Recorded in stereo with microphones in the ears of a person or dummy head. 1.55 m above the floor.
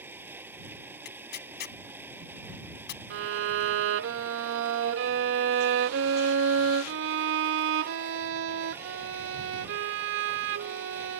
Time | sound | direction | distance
0.0 | a machine running | 15° right (ahead or behind) | ?
1.1 | tearing paper | 50° left (ahead or behind) | ?
3.1 | a violin | 65° right (ahead or behind) | ?